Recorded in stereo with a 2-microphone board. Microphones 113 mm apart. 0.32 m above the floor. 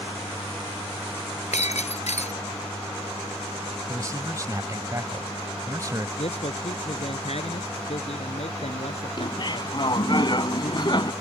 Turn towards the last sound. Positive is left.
turn(degrees=40)  # may be behind; listen again after turning